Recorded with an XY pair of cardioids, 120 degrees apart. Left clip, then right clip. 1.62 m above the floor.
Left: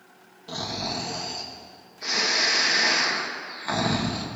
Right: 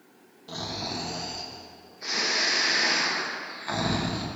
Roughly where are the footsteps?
No footsteps in this recording.